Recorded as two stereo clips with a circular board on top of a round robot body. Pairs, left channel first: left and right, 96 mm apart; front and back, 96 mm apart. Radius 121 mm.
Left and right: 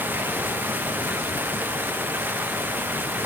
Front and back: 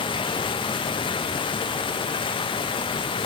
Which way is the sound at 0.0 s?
20° right.